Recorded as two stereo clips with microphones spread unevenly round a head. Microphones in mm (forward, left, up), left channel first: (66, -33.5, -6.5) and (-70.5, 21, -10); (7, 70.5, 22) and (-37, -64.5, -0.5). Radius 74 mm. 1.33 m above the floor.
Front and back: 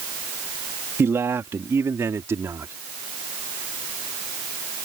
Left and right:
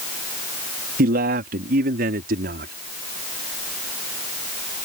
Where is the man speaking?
130° right.